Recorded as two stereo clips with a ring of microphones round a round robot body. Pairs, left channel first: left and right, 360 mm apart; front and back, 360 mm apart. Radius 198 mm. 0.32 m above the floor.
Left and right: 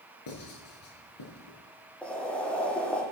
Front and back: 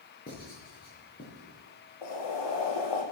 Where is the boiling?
5° left, 6.5 m.